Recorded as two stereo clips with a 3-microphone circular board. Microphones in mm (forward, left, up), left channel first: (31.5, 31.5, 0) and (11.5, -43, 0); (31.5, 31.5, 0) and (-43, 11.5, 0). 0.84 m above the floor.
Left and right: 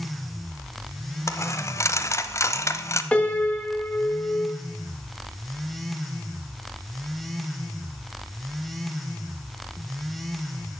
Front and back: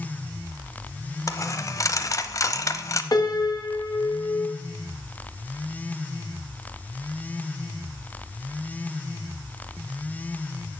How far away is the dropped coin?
About 0.8 m.